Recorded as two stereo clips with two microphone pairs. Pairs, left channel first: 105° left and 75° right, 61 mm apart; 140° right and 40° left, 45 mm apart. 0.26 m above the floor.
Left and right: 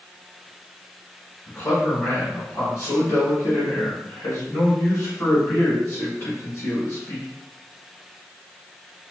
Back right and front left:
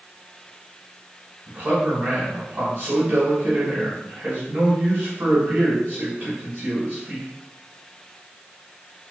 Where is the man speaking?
55° left, 1.5 m.